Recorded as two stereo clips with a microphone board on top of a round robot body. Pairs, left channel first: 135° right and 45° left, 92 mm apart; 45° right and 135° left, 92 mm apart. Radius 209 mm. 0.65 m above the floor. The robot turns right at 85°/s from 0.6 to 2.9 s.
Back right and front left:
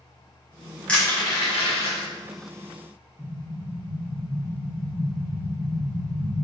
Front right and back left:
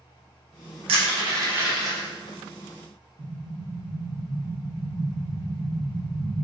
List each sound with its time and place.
0.9 s crushing: 145° left, 0.8 m; by 2.1 s 115° right, 0.8 m
3.2 s an explosion: 140° left, 1.2 m